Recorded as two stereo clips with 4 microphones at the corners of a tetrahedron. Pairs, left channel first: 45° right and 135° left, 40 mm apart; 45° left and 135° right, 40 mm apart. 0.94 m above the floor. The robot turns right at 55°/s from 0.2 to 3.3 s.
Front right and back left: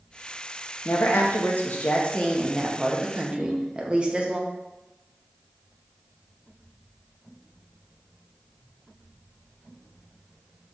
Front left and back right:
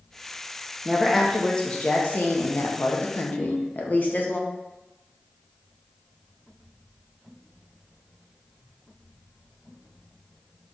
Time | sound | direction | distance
0.8 | a woman speaking | 60° right | 0.8 m
3.4 | a ringtone | 115° left | 0.8 m